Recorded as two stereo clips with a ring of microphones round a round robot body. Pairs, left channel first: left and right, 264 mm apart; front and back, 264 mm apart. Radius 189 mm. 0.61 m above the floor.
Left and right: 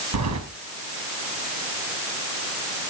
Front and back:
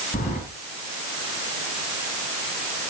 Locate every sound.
0.1 s keys jangling: 70° right, 4 m